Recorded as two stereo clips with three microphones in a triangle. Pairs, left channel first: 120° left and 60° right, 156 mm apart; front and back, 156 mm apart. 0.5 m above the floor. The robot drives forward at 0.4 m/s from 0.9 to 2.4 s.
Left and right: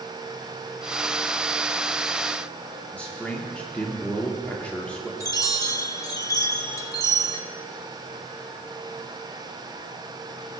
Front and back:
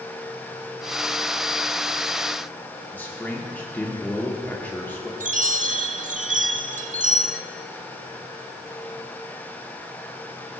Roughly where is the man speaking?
Ahead left.